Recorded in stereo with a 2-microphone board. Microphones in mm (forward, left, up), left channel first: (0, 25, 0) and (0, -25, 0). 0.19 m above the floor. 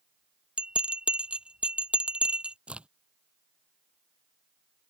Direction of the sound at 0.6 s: 20° right (ahead or behind).